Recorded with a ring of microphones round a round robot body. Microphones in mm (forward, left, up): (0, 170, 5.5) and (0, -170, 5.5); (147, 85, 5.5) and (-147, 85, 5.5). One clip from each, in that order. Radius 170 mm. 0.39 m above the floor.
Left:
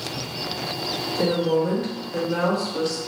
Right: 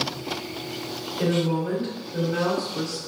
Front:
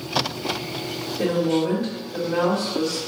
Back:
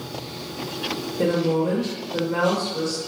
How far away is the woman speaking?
About 1.6 m.